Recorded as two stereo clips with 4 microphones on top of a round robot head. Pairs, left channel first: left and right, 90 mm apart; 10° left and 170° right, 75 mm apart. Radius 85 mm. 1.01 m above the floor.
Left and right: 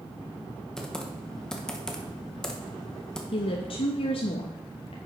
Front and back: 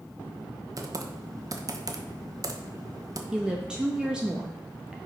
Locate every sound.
0.8 s typing on a keyboard: 170° left, 1.2 m
3.3 s a woman speaking: 110° left, 0.9 m